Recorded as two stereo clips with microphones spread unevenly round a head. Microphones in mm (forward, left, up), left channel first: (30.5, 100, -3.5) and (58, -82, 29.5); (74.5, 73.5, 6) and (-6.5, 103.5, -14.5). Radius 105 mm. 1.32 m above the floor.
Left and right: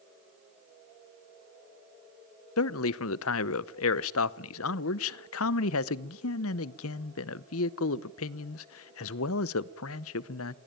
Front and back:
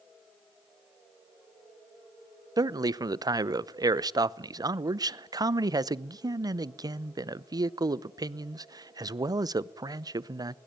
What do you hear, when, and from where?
2.6 s a man speaking: 110° left, 0.8 m